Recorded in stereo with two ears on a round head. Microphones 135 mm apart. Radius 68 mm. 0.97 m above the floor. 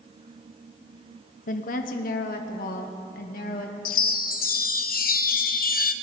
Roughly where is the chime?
Left.